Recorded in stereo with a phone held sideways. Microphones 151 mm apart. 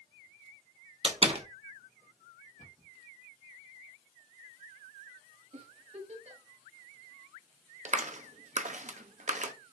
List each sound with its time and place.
1.0 s a door slam: 40° right (ahead or behind), 0.8 m
2.6 s a cupboard door: 55° left (ahead or behind), 1.5 m
5.5 s a giggle: 45° right (ahead or behind), 1.2 m
7.8 s a clap: 55° right (ahead or behind), 0.6 m